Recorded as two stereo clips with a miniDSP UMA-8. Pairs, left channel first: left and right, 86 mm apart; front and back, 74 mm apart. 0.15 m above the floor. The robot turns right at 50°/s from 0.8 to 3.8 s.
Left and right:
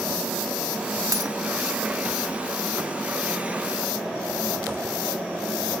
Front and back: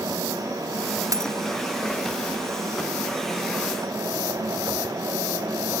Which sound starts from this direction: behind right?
A dropped coin, at 1.1 s.